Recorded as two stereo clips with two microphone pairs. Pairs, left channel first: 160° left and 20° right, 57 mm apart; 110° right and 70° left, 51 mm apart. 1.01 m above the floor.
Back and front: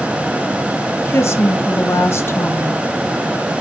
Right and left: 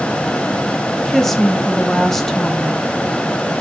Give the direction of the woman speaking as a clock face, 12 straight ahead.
6 o'clock.